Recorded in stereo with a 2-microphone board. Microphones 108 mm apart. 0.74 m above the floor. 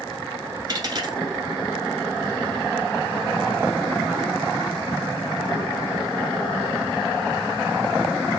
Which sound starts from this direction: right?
A dropped coin, at 0.7 s.